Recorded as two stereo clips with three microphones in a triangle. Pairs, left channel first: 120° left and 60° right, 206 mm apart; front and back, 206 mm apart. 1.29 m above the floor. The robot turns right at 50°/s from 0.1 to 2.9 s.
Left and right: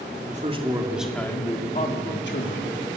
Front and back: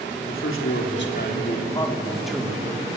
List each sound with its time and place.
0.3 s a man speaking: 10° right, 3.5 m; by 3.0 s 120° left, 3.5 m